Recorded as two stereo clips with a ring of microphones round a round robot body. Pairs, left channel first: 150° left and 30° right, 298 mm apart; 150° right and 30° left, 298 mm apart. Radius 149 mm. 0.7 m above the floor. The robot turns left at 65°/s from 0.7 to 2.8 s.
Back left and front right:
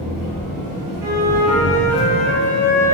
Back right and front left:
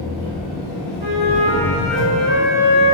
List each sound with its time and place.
0.0 s an engine running: 55° right, 1.8 m; by 3.0 s 170° left, 1.8 m
1.0 s a flute: 20° right, 0.9 m; by 3.0 s 140° right, 0.9 m